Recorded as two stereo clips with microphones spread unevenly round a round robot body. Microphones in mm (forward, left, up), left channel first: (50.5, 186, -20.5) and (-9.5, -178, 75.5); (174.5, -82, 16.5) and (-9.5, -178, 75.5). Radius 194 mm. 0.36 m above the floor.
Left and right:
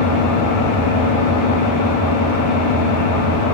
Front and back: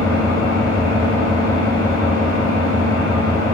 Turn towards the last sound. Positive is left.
turn(degrees=120)